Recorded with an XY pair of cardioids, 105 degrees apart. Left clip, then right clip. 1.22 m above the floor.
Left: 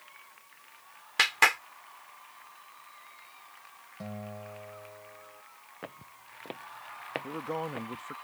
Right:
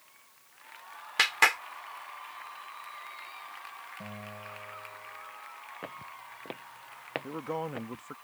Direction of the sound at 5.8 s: Straight ahead.